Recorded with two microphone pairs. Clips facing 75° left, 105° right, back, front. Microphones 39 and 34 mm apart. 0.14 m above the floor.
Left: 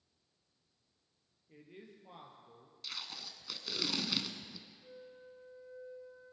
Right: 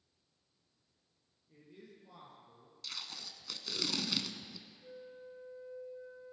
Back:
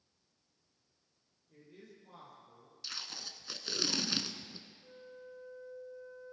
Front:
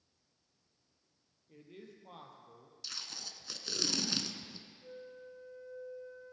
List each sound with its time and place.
1.5 s a man speaking: 35° left, 3 m
2.8 s tape being pulled: 135° left, 0.8 m
4.8 s a flute: 55° right, 1.6 m